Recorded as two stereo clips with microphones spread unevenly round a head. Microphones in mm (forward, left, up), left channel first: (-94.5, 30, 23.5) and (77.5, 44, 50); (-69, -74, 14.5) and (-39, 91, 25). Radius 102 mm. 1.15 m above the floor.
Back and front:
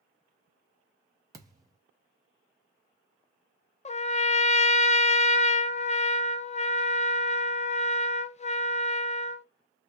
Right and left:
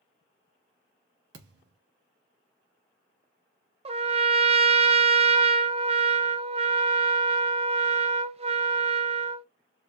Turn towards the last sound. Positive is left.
turn(degrees=140)